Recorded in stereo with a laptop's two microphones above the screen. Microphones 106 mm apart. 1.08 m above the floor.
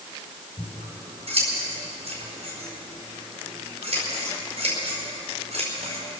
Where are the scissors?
80° right, 4 m.